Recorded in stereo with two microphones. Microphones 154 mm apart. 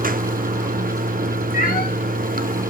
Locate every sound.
0.0 s running water: 70° right (ahead or behind), 0.7 m
1.5 s a cat meowing: 85° left, 3 m